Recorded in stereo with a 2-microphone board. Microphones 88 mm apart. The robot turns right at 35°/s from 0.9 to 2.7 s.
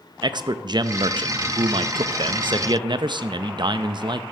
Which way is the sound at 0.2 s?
125° right.